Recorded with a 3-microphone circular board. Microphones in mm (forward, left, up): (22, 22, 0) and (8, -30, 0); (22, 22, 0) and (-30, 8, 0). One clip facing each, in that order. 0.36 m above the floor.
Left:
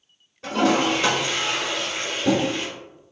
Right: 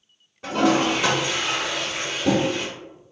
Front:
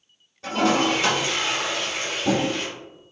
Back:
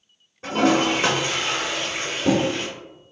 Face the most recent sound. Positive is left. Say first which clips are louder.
# even, back 2 dB
turn(degrees=180)